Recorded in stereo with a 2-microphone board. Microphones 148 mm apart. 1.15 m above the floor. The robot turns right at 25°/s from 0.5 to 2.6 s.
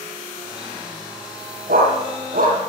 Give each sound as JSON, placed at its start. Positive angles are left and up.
{"t": 1.7, "sound": "a dog barking", "side_deg": -80, "distance_m": 9.5}